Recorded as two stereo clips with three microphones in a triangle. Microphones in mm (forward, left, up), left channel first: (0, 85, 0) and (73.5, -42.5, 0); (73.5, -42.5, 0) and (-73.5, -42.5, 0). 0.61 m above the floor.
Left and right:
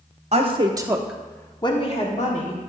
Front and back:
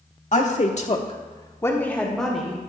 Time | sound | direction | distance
0.3 | a woman speaking | 20° right | 1.2 m